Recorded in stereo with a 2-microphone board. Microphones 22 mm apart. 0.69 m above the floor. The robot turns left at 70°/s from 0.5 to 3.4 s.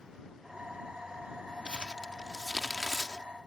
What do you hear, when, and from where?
1.6 s crumpling: 55° right (ahead or behind); by 3.2 s 30° left (ahead or behind)